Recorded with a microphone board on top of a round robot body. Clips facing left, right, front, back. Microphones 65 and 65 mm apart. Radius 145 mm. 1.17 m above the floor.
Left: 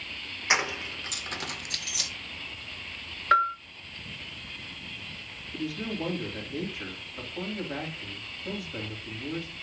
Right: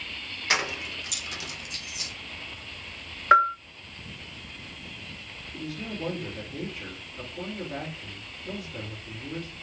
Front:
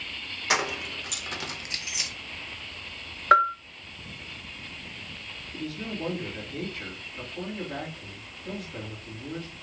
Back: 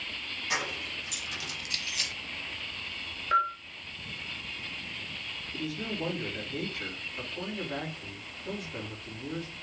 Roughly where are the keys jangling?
Ahead.